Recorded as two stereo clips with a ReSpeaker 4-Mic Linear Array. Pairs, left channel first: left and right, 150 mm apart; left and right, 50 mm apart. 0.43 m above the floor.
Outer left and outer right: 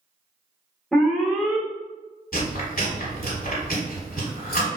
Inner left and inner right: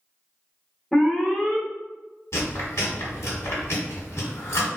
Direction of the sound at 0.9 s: Centre (ahead or behind).